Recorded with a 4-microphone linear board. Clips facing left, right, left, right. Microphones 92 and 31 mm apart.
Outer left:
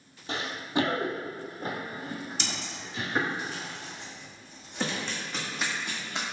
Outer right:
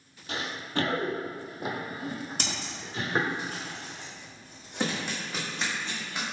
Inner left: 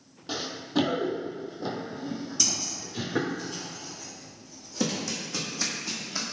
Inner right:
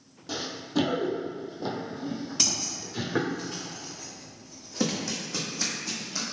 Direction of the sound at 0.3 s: 35° left (ahead or behind).